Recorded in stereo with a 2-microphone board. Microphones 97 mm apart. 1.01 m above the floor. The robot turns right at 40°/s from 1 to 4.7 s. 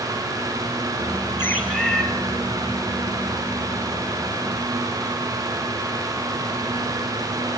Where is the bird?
20° left (ahead or behind), 5 m; by 2.0 s 5° right (ahead or behind), 5 m.